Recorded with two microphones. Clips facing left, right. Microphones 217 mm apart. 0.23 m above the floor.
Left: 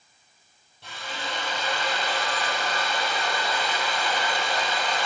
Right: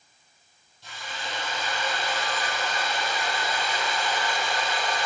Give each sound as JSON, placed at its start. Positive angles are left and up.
{"t": 0.8, "sound": "a drill", "side_deg": 65, "distance_m": 7.5}